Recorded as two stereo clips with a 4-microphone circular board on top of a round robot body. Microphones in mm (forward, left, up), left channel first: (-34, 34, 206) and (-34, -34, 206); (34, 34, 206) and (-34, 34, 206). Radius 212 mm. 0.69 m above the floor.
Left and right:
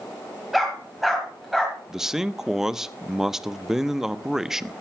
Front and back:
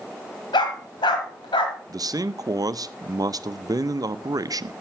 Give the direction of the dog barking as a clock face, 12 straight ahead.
12 o'clock.